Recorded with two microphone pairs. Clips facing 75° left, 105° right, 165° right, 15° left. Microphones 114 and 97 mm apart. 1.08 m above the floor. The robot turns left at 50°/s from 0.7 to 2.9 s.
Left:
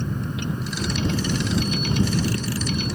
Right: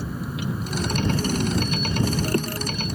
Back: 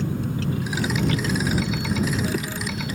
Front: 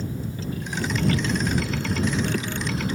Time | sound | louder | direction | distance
0.0 | a vehicle | left 1 dB, back 5 dB | 175° left | ?